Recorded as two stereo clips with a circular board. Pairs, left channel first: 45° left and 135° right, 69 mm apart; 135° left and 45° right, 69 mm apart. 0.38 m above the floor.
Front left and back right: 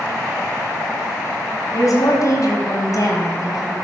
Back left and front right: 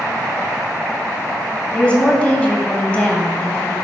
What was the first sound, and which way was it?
A woman speaking, 65° left.